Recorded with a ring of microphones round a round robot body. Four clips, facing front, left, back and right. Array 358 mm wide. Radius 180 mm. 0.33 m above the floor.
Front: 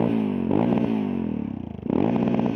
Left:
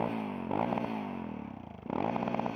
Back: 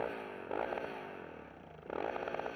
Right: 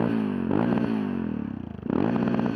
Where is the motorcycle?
25° right.